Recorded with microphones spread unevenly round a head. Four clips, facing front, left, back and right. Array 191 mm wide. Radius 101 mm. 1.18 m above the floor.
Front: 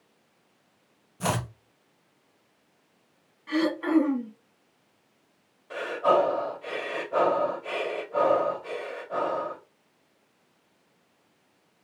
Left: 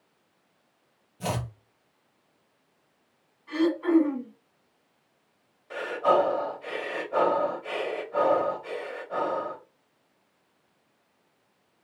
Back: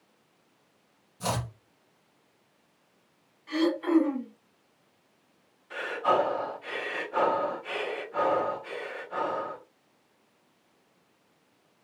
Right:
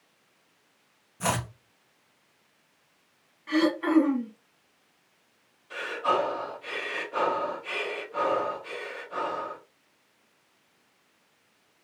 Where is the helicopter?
No helicopter in this recording.